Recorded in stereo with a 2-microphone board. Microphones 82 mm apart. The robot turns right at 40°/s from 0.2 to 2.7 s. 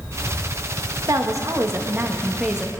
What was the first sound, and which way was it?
A woman speaking, 70° right.